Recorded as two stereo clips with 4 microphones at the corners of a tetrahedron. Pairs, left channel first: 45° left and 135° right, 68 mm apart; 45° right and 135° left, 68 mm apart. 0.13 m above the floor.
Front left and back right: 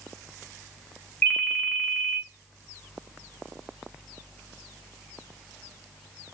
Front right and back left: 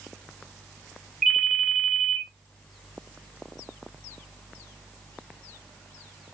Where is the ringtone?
45° left, 0.9 m.